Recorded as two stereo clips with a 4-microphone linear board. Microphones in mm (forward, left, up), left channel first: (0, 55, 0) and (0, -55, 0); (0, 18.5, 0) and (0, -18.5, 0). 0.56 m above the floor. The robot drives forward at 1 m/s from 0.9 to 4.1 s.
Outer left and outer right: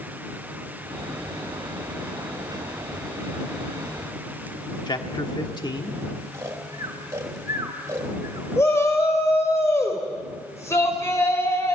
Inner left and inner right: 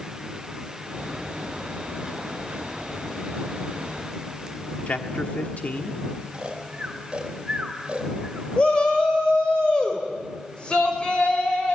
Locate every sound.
4.9 s a man speaking: 40° left (ahead or behind), 1.5 m
6.3 s snoring: 25° right (ahead or behind), 3 m
8.6 s a shout: 25° left (ahead or behind), 2.5 m